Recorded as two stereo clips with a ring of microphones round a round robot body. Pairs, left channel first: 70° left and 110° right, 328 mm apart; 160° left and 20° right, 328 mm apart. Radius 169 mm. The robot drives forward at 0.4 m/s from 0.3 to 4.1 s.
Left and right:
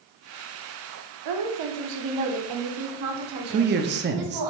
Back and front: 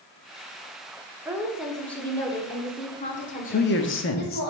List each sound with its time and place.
1.2 s a woman speaking: 105° right, 1.2 m; by 4.5 s 145° right, 1.9 m
3.5 s a man speaking: 155° right, 0.7 m; by 4.4 s 165° right, 0.9 m